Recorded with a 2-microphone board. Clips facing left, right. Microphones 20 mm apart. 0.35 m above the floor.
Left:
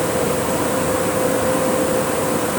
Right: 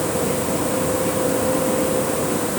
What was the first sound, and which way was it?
Only background noise.